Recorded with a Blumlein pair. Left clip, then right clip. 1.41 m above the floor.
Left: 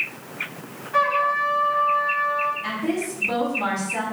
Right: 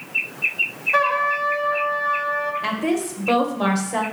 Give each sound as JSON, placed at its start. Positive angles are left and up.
{"t": 0.9, "sound": "a trumpet", "azimuth_deg": -30, "distance_m": 1.0}
{"t": 2.6, "sound": "a woman speaking", "azimuth_deg": -50, "distance_m": 1.2}